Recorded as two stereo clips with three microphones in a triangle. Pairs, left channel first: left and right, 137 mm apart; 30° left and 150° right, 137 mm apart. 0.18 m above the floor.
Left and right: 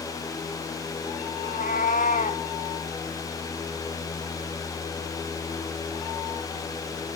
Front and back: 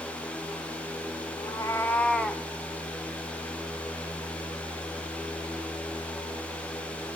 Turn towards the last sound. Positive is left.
turn(degrees=125)